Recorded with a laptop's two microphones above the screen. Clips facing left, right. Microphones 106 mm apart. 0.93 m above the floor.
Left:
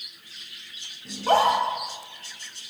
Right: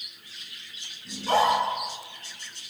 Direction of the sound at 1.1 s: 50° left (ahead or behind).